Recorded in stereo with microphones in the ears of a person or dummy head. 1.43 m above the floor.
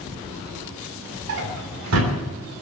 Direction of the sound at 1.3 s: 75° right (ahead or behind).